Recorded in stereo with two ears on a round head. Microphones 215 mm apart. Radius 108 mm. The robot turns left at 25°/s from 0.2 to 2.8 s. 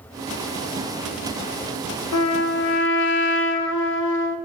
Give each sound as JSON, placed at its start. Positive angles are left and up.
{"t": 2.1, "sound": "a trumpet", "side_deg": 65, "distance_m": 0.6}